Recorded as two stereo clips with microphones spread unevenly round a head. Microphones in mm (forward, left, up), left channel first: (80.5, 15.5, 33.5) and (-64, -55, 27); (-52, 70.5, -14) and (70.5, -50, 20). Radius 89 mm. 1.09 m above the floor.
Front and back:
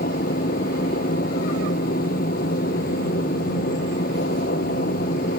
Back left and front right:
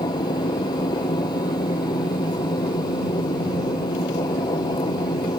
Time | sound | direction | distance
0.0 | a machine running | 70° left | ?